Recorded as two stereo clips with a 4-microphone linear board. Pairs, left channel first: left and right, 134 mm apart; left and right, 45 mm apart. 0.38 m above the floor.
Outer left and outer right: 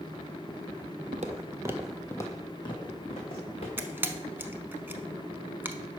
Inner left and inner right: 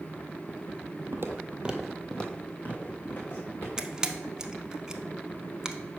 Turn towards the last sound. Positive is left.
turn(degrees=-15)  # may be behind; listen again after turning